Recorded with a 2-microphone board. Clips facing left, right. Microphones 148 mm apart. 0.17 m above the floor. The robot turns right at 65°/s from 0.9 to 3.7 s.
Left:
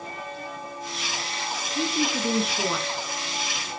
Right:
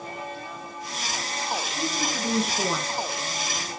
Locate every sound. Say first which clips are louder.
1.6 s a woman speaking: left 3 dB; 125° left, 3 m; by 2.9 s 155° right, 3 m